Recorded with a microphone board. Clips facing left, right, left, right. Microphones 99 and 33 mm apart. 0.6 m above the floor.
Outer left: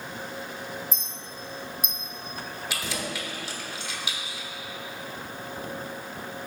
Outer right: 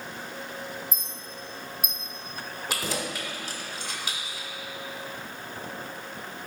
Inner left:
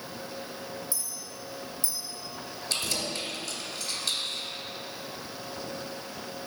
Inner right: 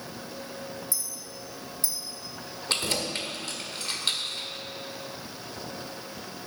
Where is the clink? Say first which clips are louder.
Outer left 1 dB, inner right 1 dB; 55° right (ahead or behind), 1.4 m.